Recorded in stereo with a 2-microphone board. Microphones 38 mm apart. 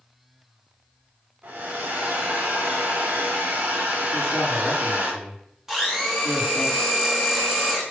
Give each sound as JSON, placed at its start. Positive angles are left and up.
{"t": 1.4, "sound": "a hair dryer", "side_deg": -60, "distance_m": 2.5}
{"t": 4.1, "sound": "a man speaking", "side_deg": -10, "distance_m": 4.5}
{"t": 5.7, "sound": "a blender", "side_deg": -10, "distance_m": 2.5}